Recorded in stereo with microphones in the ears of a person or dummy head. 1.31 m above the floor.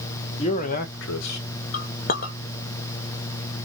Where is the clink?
40° left (ahead or behind), 0.7 m.